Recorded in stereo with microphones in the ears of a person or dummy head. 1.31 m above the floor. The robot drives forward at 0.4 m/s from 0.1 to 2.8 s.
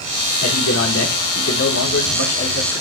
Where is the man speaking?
80° left, 3.5 m; by 2.8 s 65° left (ahead or behind), 4 m.